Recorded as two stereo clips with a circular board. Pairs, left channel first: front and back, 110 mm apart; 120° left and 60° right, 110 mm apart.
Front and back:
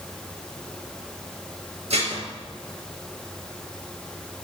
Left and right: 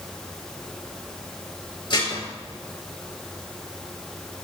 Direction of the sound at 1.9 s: 170° left.